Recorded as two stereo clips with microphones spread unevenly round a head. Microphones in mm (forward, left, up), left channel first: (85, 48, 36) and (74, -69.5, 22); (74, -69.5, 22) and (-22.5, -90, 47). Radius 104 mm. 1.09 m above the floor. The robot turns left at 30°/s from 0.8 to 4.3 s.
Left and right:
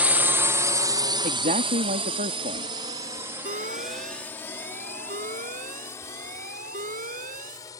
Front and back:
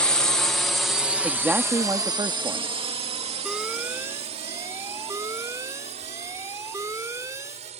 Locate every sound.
0.0 s a drone: 35° right; by 7.8 s 155° left
1.2 s a man speaking: 85° right; by 2.7 s 130° right
3.5 s an alarm: 85° right; by 7.7 s 110° right